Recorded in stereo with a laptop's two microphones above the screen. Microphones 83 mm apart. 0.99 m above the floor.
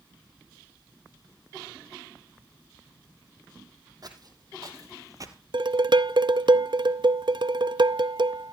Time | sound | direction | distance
4.0 | footsteps | 50° right (ahead or behind) | 2.5 m
5.5 | dishes clattering | 65° right (ahead or behind) | 0.6 m